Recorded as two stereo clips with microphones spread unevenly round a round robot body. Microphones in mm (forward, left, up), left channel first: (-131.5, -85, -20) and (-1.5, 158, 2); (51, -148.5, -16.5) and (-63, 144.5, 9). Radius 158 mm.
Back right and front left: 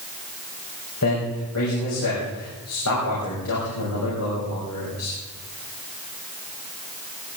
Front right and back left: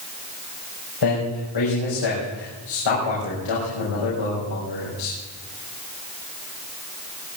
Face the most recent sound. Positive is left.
turn(degrees=-75)